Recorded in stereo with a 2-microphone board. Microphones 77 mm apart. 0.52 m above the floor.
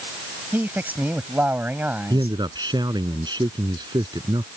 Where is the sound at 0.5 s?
25° right (ahead or behind).